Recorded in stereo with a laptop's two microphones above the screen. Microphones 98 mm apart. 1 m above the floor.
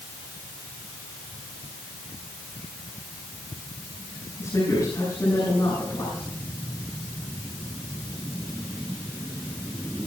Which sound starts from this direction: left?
A woman speaking, at 4.4 s.